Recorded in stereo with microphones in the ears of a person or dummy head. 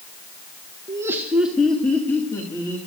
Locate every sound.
0.9 s laughter: 20° right (ahead or behind), 1.2 m; by 2.8 s 20° left (ahead or behind), 2.5 m